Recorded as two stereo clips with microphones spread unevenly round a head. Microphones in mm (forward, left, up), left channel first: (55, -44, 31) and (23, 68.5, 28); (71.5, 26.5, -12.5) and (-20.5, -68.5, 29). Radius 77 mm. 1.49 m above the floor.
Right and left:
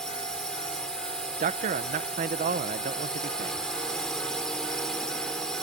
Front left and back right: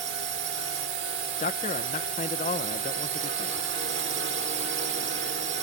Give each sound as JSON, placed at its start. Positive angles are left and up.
{"t": 0.0, "sound": "a drone", "azimuth_deg": -160}
{"t": 1.4, "sound": "a man speaking", "azimuth_deg": 95}